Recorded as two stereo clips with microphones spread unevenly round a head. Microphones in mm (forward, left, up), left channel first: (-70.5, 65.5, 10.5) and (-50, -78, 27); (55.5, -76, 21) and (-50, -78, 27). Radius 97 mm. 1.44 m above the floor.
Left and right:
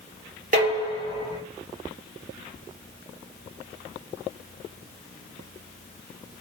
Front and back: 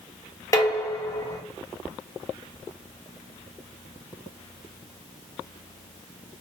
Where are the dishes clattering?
60° right, 1.1 m.